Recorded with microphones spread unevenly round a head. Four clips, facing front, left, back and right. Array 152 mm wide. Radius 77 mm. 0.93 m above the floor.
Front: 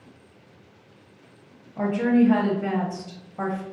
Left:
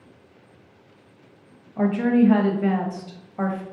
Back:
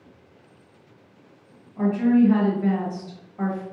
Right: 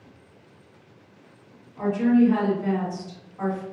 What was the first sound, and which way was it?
A woman speaking, 60° left.